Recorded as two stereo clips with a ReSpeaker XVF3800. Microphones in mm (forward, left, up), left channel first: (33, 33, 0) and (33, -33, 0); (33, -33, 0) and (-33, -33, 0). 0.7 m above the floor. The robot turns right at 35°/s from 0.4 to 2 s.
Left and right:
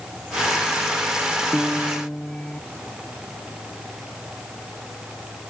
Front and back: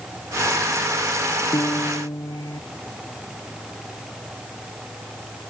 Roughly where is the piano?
Ahead.